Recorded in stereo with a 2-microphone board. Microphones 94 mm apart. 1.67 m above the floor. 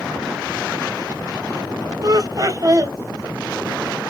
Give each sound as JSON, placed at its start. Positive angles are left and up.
{"t": 2.0, "sound": "laughter", "side_deg": -40, "distance_m": 1.4}